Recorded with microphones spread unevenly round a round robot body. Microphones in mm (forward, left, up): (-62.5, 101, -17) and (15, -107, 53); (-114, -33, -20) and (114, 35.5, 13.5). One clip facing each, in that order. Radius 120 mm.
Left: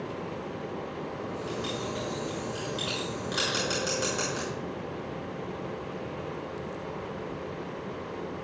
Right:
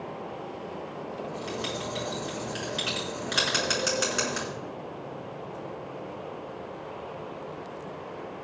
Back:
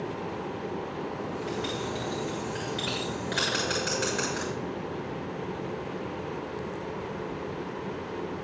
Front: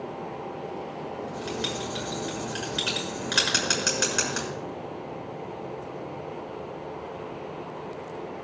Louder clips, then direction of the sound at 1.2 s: Right 1 dB, front 2 dB; 5° right.